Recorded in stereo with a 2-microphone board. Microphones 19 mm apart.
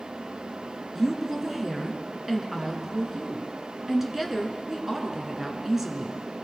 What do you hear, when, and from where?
0.9 s a woman speaking: 20° right (ahead or behind), 1.5 m